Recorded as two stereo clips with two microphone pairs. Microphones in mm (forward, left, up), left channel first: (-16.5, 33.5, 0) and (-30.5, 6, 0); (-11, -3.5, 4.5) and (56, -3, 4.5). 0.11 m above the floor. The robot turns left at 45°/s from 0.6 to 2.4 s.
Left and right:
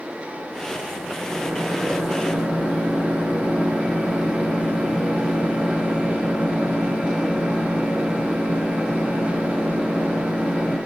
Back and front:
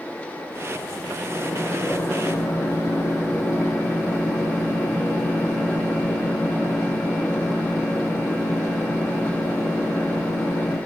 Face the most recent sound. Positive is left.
turn(degrees=-140)